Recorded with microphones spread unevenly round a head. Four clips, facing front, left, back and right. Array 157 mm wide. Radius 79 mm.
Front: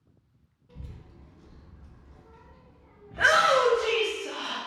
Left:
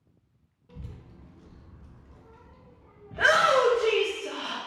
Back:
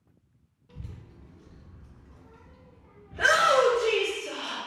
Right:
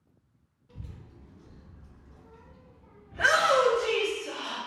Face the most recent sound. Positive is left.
turn(degrees=70)